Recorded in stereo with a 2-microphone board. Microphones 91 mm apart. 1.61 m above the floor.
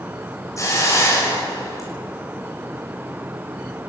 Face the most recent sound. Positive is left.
turn(degrees=35)  # may be behind; listen again after turning